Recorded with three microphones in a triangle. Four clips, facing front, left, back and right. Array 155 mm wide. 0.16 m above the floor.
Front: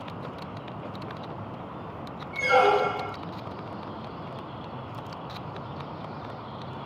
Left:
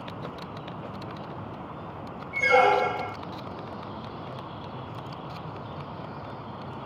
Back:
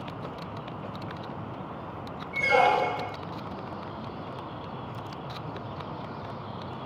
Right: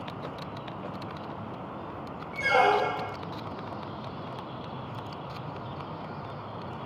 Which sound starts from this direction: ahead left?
A squeak, at 2.3 s.